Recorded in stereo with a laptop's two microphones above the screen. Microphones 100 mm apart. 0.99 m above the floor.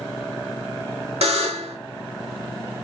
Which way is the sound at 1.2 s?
80° right.